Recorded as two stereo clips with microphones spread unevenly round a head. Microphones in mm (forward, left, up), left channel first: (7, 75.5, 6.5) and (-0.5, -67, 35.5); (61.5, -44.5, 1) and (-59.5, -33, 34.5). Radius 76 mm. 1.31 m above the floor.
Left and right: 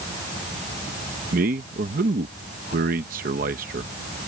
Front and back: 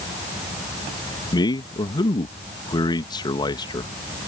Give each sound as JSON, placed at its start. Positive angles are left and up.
{"t": 1.3, "sound": "a man speaking", "azimuth_deg": -60}